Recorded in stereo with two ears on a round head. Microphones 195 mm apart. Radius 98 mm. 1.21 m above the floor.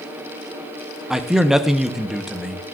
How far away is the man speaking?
About 0.6 m.